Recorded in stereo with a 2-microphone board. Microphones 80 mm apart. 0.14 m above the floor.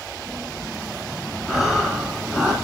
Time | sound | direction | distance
1.5 | breathing | 5° right (ahead or behind) | 1.6 m